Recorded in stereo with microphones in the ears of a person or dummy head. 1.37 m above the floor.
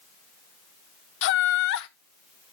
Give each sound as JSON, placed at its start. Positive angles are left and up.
{"t": 1.2, "sound": "laughter", "side_deg": 70, "distance_m": 0.9}